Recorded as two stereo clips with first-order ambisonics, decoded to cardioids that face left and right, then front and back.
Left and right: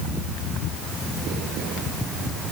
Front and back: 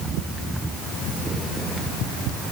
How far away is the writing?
No writing in this recording.